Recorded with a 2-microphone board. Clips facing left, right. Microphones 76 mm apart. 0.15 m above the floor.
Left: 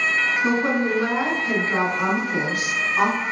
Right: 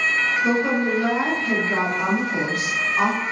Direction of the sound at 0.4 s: 35° left (ahead or behind).